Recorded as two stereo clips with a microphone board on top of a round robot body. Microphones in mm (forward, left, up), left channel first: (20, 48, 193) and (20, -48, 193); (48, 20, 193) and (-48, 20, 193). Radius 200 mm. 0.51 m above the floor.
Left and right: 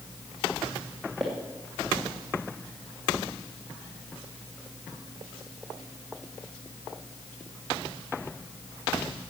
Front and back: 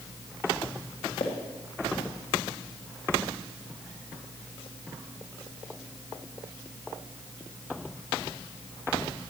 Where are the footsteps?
Straight ahead, 2 m.